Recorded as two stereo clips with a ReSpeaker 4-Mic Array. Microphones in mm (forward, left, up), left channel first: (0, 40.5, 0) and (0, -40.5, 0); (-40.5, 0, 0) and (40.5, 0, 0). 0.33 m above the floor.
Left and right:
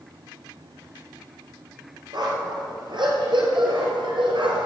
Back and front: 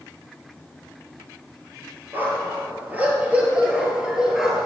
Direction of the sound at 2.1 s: 65° right.